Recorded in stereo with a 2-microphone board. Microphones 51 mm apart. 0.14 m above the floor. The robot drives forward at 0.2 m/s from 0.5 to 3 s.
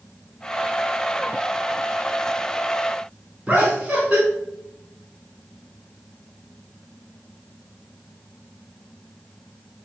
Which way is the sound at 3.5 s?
20° right (ahead or behind).